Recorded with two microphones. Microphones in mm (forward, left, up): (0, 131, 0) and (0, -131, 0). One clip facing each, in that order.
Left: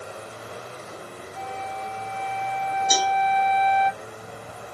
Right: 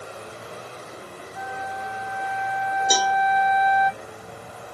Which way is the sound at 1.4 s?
30° left (ahead or behind).